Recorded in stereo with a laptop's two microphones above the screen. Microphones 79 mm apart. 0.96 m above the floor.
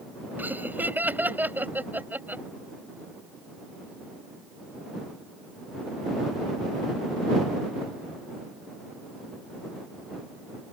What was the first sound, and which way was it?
Laughter, 25° right (ahead or behind).